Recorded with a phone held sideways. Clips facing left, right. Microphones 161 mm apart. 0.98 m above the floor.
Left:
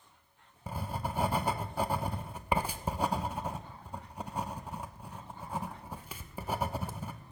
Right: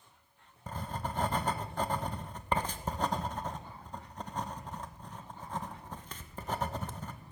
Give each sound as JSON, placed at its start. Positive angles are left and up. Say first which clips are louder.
{"t": 0.7, "sound": "writing", "louder": "left 1 dB", "side_deg": 10, "distance_m": 0.7}